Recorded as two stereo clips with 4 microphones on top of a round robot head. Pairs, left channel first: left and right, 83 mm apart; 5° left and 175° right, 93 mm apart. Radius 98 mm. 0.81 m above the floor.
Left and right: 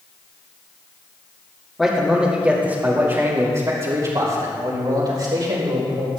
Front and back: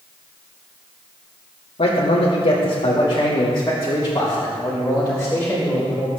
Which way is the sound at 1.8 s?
5° left.